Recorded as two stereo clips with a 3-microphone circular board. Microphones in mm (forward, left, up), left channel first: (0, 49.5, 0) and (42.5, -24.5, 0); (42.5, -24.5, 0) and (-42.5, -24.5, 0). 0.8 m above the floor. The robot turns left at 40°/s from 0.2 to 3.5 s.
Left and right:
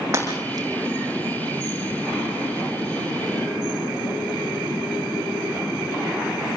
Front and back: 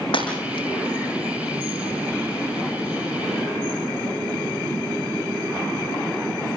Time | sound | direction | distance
0.1 | breaking glass | straight ahead | 7 m